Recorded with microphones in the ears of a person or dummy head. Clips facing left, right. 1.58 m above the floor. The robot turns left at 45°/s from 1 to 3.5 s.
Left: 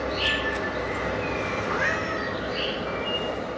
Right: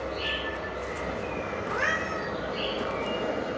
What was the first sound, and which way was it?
An insect, 95° left.